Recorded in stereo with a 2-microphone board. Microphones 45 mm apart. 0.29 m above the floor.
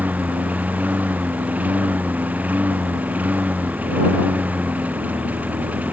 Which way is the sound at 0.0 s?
35° right (ahead or behind).